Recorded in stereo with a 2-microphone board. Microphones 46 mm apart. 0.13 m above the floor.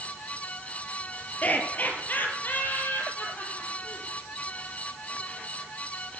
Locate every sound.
1.4 s laughter: 35° left (ahead or behind), 3 m; by 4.1 s 50° left (ahead or behind), 6 m